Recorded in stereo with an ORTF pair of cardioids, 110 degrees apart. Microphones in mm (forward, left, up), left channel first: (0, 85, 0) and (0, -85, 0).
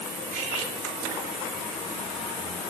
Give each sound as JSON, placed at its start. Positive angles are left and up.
{"t": 0.3, "sound": "cutlery clinking", "azimuth_deg": -55, "distance_m": 2.5}